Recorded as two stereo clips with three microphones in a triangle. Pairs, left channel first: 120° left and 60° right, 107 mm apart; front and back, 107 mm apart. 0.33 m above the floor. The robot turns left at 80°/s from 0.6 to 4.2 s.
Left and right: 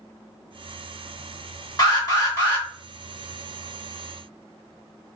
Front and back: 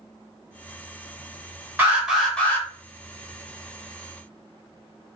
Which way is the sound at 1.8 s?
120° left.